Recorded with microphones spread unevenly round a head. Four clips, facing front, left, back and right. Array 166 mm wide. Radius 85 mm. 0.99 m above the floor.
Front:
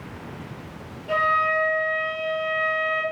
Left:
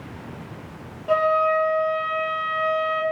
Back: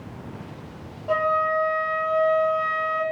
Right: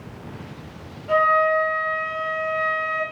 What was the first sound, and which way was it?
A flute, 150° left.